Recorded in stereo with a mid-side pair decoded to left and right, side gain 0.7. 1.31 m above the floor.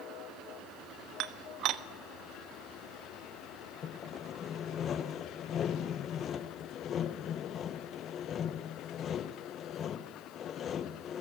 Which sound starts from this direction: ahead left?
Sawing, at 3.8 s.